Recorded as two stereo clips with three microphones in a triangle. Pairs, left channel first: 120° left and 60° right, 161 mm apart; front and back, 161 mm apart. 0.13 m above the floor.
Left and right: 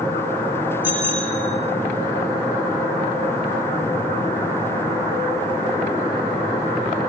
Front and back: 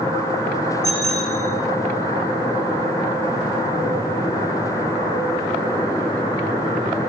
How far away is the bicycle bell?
About 5.5 m.